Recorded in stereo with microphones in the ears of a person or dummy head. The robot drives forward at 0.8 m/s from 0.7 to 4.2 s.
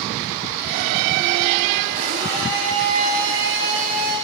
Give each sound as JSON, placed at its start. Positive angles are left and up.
{"t": 1.9, "sound": "a blender", "side_deg": -30, "distance_m": 3.5}